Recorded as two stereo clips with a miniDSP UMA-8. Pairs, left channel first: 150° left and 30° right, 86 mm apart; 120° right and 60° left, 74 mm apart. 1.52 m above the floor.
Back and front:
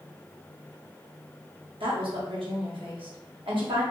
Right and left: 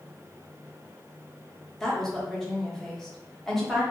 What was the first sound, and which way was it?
A woman speaking, 35° right.